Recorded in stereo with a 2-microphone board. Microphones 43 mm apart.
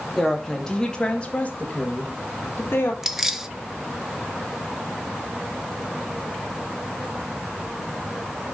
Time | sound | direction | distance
0.2 | a woman speaking | 5° left (ahead or behind) | 3 m
3.0 | keys jangling | 10° right (ahead or behind) | 0.7 m